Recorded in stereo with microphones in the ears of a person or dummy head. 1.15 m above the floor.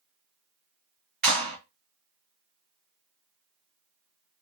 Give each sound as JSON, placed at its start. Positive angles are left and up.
{"t": 1.2, "sound": "a clap", "side_deg": -50, "distance_m": 1.1}